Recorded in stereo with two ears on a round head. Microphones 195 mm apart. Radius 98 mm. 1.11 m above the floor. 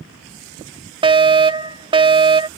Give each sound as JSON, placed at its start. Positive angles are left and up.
{"t": 1.0, "sound": "a fire alarm", "side_deg": -25}